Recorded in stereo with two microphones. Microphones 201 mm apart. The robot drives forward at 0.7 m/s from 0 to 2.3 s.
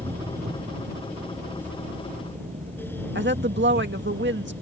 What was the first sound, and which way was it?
An engine running, 35° right (ahead or behind).